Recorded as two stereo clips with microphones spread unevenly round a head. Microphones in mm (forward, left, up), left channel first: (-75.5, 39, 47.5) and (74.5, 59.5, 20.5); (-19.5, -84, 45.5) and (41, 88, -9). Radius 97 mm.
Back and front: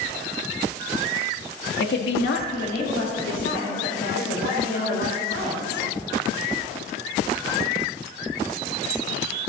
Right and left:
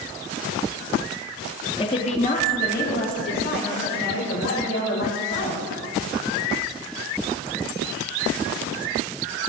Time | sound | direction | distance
1.8 | a woman speaking | straight behind | 1.8 m